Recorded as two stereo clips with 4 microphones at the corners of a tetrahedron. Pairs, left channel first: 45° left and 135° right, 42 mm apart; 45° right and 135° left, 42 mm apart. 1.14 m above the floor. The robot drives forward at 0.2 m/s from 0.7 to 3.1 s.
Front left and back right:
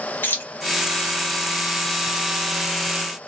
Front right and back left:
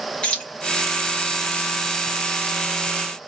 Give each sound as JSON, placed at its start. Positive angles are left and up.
{"t": 0.2, "sound": "keys jangling", "azimuth_deg": 15, "distance_m": 0.9}